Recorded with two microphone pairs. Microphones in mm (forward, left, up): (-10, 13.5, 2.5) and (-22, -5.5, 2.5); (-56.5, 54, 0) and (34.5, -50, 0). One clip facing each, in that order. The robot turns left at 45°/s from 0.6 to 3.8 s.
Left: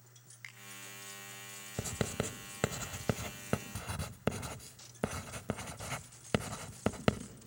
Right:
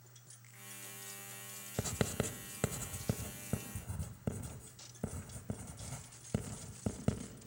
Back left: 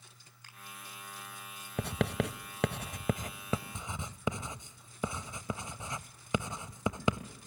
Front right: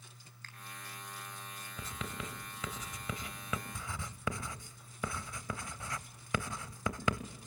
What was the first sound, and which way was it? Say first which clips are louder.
A finger snap: left 16 dB, front right 2 dB; 55° left.